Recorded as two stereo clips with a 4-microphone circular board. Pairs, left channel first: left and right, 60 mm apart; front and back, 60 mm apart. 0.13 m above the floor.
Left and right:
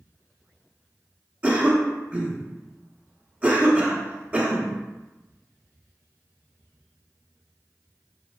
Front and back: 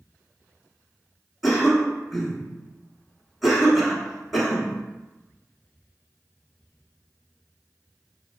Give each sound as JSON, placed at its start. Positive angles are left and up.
{"t": 1.4, "sound": "a cough", "azimuth_deg": -95, "distance_m": 1.1}